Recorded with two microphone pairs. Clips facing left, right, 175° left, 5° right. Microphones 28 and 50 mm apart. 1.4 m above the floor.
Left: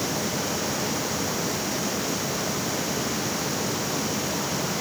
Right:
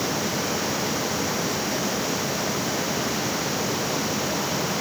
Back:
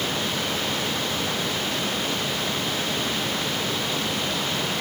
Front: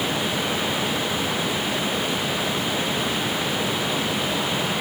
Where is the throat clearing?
No throat clearing in this recording.